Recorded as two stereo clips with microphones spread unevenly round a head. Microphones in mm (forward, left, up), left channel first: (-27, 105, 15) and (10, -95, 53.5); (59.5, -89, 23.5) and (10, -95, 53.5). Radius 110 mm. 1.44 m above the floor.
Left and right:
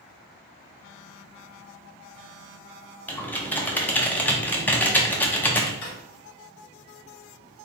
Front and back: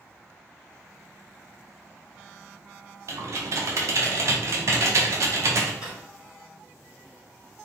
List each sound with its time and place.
3.1 s typing on a keyboard: 175° right, 0.7 m
5.8 s a drawer: 70° left, 1.5 m